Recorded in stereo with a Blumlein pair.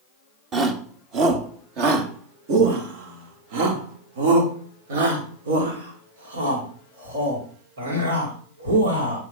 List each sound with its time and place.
0.5 s a shout: 30° right, 2.5 m; by 9.2 s 70° right, 6 m